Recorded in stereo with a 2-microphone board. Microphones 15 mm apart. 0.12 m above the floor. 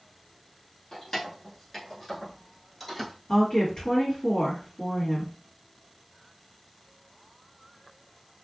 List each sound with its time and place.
0.9 s keys jangling: 30° left (ahead or behind), 1.1 m; by 3.1 s 15° left (ahead or behind), 1.6 m
3.3 s a woman speaking: 55° left (ahead or behind), 1.9 m